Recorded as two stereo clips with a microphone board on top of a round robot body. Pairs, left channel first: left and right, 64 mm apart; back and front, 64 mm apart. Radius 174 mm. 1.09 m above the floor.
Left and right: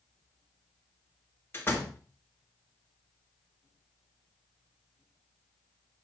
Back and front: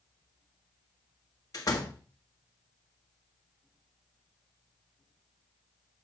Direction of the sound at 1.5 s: 145° left.